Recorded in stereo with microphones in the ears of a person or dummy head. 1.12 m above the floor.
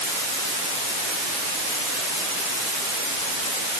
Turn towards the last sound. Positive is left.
No sound to turn to.